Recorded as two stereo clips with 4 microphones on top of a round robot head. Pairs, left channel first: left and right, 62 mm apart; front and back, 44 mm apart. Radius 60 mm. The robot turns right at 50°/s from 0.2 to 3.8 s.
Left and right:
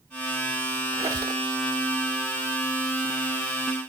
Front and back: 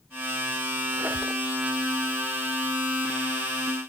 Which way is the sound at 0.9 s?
120° right.